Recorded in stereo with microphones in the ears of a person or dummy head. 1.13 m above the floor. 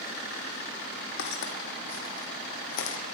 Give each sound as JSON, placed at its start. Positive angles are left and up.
{"t": 1.2, "sound": "footsteps", "side_deg": 65, "distance_m": 2.5}